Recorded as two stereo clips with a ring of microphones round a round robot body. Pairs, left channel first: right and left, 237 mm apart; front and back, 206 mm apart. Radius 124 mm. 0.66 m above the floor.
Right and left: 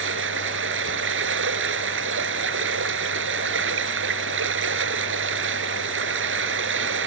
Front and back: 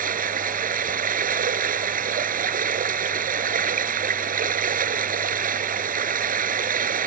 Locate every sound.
0.0 s running water: 130° left